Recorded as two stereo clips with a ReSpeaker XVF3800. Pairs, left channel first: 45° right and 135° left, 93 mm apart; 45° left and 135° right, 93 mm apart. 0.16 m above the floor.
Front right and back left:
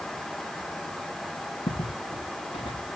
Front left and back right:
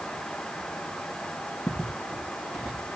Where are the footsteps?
40° right, 7 m; by 2.9 s 50° right, 7 m.